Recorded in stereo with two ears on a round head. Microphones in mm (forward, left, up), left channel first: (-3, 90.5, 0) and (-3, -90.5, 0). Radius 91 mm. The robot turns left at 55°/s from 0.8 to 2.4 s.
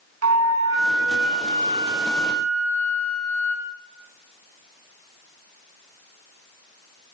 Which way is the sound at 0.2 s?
100° right.